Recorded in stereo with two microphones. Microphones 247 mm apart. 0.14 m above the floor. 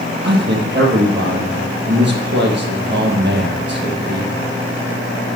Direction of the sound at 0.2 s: 45° right (ahead or behind).